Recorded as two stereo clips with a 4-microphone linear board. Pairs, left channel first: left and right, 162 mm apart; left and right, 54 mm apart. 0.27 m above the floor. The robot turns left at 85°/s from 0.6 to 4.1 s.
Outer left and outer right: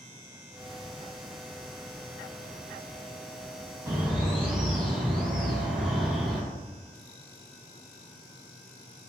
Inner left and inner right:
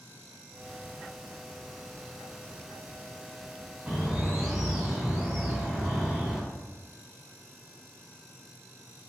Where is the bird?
20° right (ahead or behind), 1.2 m; by 6.4 s 5° right (ahead or behind), 1.2 m.